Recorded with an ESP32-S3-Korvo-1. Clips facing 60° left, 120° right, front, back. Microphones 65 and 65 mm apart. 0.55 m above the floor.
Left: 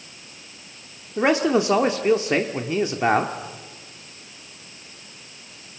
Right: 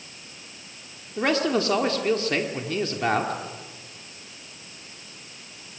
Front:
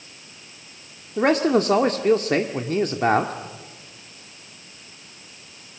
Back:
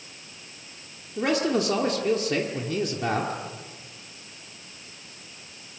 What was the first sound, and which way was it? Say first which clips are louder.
A man speaking: left 4 dB, front 5 dB; straight ahead.